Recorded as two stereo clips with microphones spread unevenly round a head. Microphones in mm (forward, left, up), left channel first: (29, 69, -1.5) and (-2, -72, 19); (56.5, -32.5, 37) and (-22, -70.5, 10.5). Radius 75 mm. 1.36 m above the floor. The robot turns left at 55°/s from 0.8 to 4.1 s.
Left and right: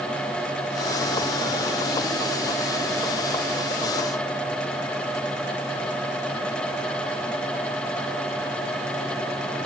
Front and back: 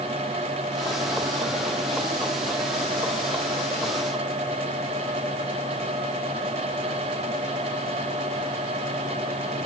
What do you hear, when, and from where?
Only background noise.